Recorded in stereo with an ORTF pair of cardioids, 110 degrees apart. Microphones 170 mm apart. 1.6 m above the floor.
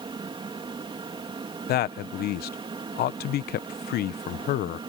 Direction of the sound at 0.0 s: 30° right.